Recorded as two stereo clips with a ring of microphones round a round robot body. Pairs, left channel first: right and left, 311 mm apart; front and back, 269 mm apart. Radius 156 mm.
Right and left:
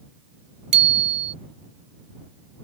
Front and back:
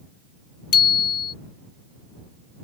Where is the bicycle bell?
35° left.